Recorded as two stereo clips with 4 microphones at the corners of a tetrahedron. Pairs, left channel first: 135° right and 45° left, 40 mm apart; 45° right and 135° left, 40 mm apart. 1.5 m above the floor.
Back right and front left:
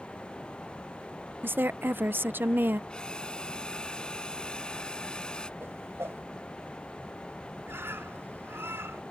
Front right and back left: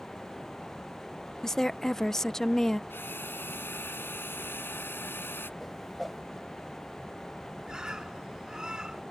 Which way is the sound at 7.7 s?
65° left.